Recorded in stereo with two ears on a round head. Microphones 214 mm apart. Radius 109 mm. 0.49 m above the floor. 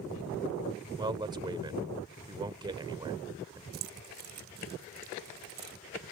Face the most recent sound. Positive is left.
turn(degrees=-60)  # may be behind; listen again after turning